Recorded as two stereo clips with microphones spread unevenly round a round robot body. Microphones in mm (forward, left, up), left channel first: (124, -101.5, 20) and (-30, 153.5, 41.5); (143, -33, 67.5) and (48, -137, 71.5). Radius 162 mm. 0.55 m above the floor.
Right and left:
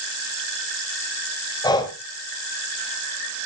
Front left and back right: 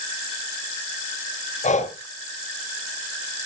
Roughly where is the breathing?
Ahead.